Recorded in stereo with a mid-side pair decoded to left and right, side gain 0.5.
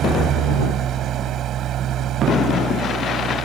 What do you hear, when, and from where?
0.0 s an engine running: 60° right